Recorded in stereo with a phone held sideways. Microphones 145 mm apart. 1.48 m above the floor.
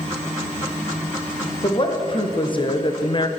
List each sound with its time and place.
1.6 s a woman speaking: 35° left (ahead or behind), 1.6 m; by 3.3 s 30° left (ahead or behind), 0.6 m